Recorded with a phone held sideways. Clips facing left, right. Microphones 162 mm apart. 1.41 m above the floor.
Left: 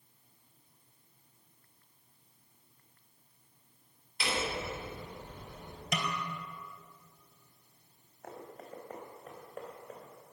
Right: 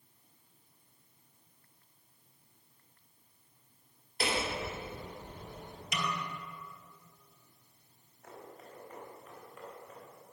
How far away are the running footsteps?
About 3.5 m.